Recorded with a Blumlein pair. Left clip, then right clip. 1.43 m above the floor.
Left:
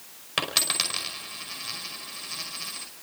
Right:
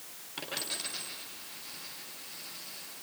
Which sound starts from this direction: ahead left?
A dropped coin, at 0.4 s.